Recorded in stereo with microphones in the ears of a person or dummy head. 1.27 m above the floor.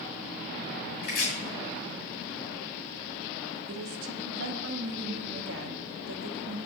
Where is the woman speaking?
80° right, 0.8 m.